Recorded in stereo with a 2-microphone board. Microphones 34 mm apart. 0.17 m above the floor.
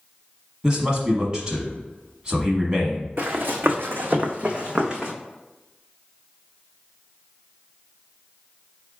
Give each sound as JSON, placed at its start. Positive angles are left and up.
{"t": 0.6, "sound": "a man speaking", "side_deg": -25, "distance_m": 1.0}
{"t": 3.2, "sound": "running footsteps", "side_deg": -80, "distance_m": 0.9}